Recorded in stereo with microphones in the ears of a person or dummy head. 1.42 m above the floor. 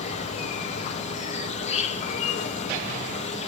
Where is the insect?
35° left (ahead or behind), 0.9 m.